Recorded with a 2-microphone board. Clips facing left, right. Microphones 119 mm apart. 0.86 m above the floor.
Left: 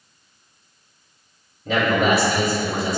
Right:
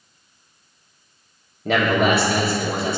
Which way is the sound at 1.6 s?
65° right (ahead or behind).